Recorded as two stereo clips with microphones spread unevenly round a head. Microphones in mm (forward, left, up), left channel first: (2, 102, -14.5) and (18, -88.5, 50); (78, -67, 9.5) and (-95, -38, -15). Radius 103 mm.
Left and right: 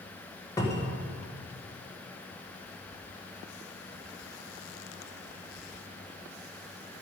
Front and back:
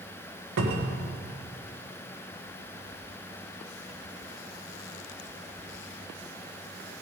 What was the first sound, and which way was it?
A cupboard door, 170° left.